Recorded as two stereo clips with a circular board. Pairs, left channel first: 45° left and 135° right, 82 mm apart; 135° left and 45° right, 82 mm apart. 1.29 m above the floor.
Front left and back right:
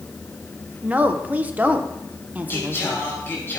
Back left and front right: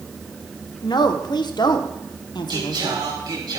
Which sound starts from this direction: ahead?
Singing, at 2.5 s.